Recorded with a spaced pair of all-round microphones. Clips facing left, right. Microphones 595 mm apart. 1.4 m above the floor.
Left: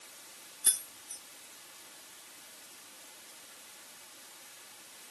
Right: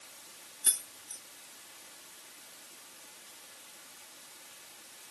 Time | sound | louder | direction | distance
0.6 | keys jangling | even | 5° left (ahead or behind) | 1.3 m